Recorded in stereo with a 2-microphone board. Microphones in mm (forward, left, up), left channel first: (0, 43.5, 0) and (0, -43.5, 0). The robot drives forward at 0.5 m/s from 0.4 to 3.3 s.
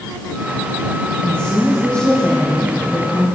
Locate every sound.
1.2 s a woman speaking: 15° left (ahead or behind), 4 m; by 3.2 s 10° left (ahead or behind), 5 m